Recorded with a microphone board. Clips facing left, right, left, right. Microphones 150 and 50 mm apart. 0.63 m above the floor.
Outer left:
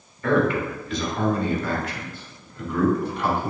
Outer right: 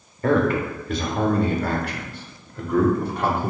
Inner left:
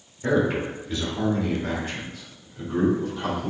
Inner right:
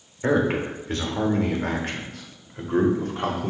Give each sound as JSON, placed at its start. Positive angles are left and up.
{"t": 0.2, "sound": "a man speaking", "side_deg": -40, "distance_m": 2.0}